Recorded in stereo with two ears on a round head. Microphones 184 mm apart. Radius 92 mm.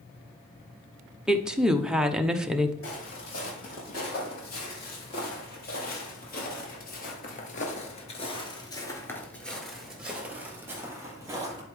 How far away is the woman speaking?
About 0.6 m.